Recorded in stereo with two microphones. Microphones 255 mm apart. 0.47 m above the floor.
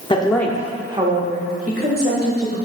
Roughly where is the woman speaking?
Left.